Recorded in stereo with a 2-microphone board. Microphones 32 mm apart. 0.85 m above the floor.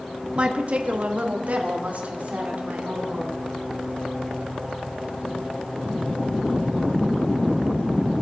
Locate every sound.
0.3 s a woman speaking: 35° right (ahead or behind), 1.0 m; by 3.4 s 55° right (ahead or behind), 3.5 m